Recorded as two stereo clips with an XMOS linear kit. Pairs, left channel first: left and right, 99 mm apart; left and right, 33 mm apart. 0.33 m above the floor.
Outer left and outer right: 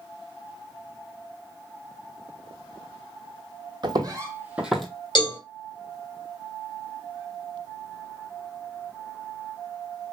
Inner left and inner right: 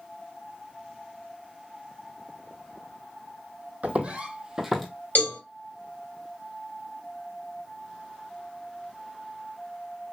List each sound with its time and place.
3.8 s footsteps: 50° right (ahead or behind), 0.9 m; by 4.9 s centre (ahead or behind), 0.8 m
5.2 s a cowbell: 50° left (ahead or behind), 2 m